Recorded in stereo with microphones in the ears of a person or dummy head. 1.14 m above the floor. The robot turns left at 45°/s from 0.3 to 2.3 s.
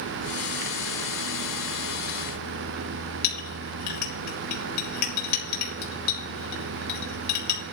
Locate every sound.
3.2 s a clink: 60° left (ahead or behind), 4 m